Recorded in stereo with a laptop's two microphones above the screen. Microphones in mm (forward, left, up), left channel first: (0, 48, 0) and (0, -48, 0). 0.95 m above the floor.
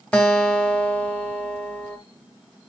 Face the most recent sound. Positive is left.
turn(degrees=15)  # may be behind; listen again after turning